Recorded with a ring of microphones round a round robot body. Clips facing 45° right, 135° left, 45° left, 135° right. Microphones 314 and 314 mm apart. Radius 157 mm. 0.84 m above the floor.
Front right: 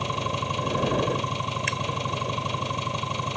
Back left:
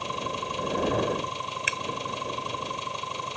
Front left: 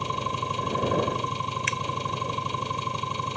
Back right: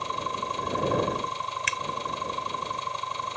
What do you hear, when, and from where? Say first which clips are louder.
0.0 s an engine running: front right 3 dB, front left 2 dB; 10° right
1.7 s a finger snap: front right 4 dB, front left 5 dB; 140° right